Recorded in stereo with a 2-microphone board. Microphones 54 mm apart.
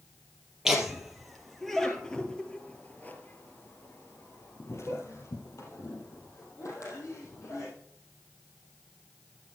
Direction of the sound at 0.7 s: 10° right (ahead or behind).